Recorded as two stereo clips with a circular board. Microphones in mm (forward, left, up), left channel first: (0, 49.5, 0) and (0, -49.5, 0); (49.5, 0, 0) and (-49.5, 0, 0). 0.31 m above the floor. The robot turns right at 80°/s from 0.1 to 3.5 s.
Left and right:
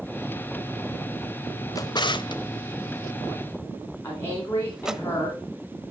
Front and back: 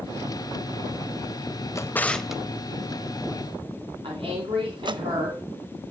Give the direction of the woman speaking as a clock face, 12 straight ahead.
7 o'clock.